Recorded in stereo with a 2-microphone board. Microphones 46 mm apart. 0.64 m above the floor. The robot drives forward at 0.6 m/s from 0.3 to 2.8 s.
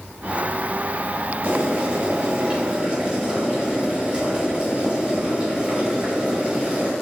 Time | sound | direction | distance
1.4 | boiling | 50° right (ahead or behind) | 1.3 m